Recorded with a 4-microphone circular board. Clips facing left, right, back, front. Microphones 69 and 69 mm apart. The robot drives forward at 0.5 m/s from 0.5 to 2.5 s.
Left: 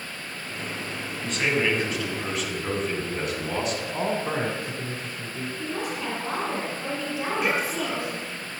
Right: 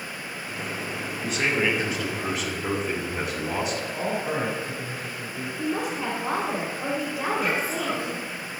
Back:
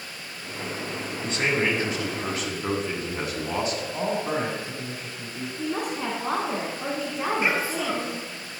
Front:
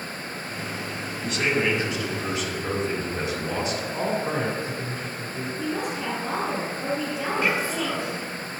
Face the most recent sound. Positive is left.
turn(degrees=105)